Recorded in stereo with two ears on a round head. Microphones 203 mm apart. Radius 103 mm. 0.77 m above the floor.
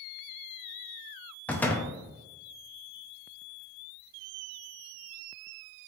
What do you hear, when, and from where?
1.5 s a door slam: 5° left (ahead or behind), 0.5 m